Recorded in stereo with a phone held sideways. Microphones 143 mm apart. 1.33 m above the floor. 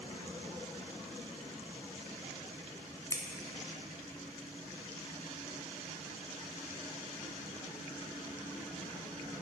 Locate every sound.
3.1 s scissors: 20° left (ahead or behind), 0.5 m